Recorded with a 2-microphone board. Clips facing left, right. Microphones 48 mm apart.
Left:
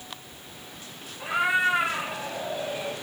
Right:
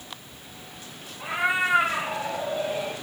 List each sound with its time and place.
1.2 s a cat meowing: centre (ahead or behind), 1.8 m; by 2.9 s 40° right (ahead or behind), 1.5 m